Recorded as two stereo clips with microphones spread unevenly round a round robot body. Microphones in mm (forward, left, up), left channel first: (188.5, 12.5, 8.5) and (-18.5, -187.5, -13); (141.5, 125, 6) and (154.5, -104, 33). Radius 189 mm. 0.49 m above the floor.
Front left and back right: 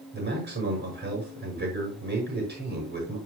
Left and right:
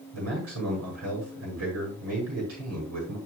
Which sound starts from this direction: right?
A man speaking, at 0.1 s.